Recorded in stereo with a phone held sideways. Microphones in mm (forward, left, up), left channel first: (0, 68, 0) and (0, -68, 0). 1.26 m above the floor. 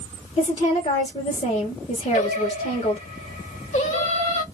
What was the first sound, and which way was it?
A woman speaking, 40° left (ahead or behind).